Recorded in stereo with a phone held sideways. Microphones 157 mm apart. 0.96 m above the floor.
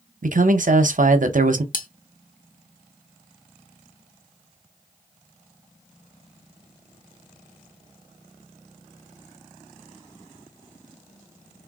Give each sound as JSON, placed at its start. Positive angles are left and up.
{"t": 0.2, "sound": "a man speaking", "side_deg": -65, "distance_m": 0.5}
{"t": 1.7, "sound": "cutlery clinking", "side_deg": 70, "distance_m": 0.6}